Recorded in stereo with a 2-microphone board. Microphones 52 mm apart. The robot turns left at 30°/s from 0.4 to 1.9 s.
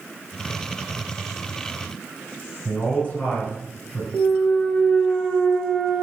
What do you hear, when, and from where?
2.6 s a man speaking: 25° left (ahead or behind), 1.3 m
4.1 s a clunk: 5° left (ahead or behind), 0.6 m